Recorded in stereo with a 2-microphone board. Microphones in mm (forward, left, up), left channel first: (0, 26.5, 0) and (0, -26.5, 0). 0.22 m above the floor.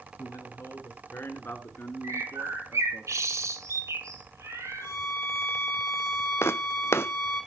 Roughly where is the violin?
Left.